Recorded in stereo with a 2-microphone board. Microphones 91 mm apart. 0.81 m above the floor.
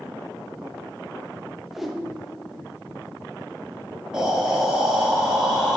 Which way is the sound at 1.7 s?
Centre (ahead or behind).